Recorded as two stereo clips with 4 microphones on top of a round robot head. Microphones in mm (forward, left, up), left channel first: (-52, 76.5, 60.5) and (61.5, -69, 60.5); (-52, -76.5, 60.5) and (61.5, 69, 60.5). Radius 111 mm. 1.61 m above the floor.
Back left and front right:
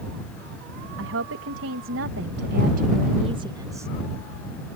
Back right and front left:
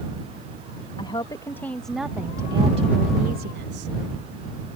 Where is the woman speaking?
60° right; by 3.9 s 25° left.